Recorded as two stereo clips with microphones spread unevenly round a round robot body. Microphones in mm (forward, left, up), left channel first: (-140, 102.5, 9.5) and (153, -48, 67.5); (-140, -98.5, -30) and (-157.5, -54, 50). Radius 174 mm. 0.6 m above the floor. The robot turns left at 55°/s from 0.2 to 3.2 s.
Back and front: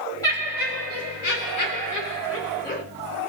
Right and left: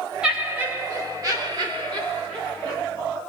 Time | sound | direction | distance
0.2 | laughter | 130° right | 1.8 m